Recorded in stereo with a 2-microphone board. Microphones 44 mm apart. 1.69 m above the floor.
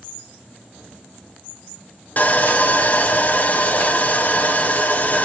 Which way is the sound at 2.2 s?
40° left (ahead or behind).